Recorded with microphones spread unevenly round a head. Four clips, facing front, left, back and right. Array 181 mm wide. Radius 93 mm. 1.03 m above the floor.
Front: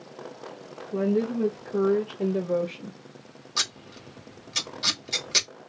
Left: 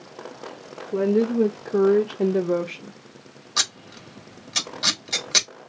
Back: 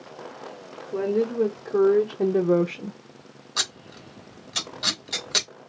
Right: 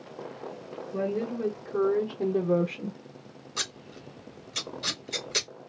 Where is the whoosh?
I don't hear a whoosh.